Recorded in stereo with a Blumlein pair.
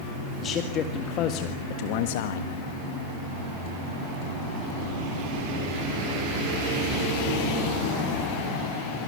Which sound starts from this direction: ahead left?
A man speaking, at 0.4 s.